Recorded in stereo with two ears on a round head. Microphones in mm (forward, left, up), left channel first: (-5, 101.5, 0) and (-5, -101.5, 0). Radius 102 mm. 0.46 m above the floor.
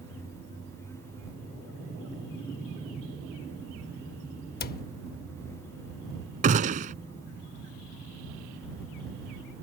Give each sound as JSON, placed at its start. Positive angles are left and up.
{"t": 4.6, "sound": "a cupboard door", "side_deg": 40}
{"t": 6.4, "sound": "a gunshot", "side_deg": -35}